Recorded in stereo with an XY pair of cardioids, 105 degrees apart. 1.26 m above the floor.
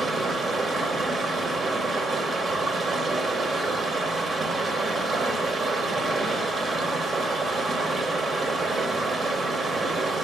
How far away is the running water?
About 1.1 m.